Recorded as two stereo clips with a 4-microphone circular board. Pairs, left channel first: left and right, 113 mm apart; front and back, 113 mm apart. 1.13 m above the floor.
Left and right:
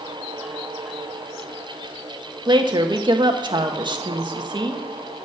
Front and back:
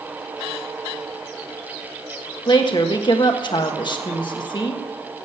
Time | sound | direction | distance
2.5 | a woman speaking | 45° right | 1.5 m